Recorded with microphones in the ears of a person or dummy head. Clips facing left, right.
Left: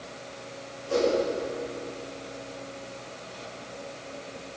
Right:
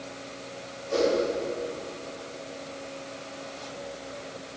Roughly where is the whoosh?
Left.